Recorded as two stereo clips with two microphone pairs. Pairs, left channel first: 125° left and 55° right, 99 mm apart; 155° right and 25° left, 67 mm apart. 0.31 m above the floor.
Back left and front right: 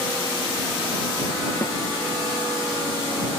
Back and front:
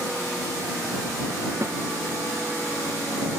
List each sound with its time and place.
1.6 s a snare drum: 65° left